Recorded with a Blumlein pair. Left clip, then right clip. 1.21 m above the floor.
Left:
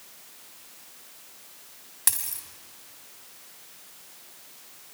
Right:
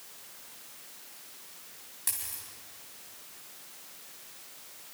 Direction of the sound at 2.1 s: 60° left.